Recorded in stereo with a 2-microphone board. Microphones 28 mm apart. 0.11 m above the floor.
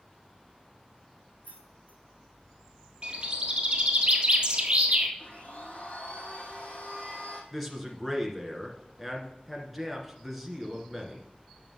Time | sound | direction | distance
1.4 | keys jangling | 55° left (ahead or behind) | 4 m
3.0 | a bird | 40° right (ahead or behind) | 1.6 m
5.2 | a blender | 70° left (ahead or behind) | 3 m
7.5 | a man speaking | centre (ahead or behind) | 1.7 m